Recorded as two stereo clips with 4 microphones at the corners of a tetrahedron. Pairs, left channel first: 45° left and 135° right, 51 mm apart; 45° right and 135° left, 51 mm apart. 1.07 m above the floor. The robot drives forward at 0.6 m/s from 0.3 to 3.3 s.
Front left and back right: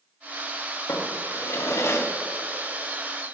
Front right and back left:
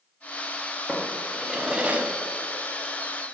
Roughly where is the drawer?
Ahead left.